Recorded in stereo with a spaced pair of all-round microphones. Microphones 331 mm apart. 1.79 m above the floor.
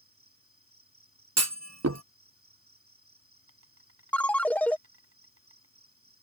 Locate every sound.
0.0 s an insect: 40° right (ahead or behind)
1.4 s a clunk: 50° right (ahead or behind)
4.1 s a ringtone: 5° left (ahead or behind)